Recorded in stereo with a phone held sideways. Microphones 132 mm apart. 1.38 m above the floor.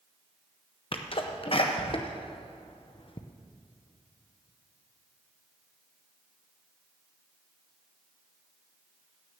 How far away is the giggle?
I don't hear a giggle.